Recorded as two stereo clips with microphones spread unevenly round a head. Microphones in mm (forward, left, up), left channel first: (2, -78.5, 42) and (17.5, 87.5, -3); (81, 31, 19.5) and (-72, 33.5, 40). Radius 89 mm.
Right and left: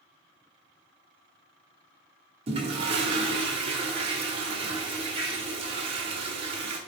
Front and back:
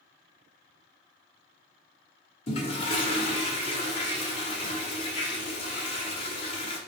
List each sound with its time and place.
2.5 s a toilet flushing: 25° left, 1.5 m